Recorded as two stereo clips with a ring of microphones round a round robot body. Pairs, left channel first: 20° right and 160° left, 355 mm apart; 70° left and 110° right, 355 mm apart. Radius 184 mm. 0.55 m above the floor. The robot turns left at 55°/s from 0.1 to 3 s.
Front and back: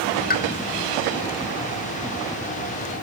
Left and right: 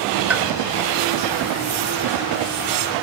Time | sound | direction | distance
0.3 | a pop | 30° right | 1.3 m